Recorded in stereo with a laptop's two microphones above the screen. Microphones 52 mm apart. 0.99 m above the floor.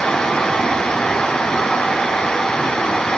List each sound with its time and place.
0.0 s a fan: 20° left (ahead or behind), 3.5 m